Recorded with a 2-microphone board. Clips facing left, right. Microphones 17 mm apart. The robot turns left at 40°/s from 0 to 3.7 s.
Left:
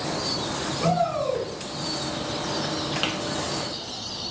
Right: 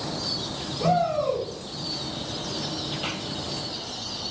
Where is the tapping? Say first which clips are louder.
Left 5 dB; 55° left (ahead or behind), 1.3 m; by 3.1 s 50° left (ahead or behind), 1.3 m.